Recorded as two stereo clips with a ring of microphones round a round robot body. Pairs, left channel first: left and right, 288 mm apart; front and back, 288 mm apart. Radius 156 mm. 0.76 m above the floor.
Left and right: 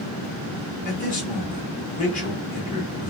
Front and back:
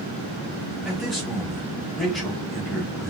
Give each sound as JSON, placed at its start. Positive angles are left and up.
{"t": 0.8, "sound": "a man speaking", "azimuth_deg": 90, "distance_m": 1.1}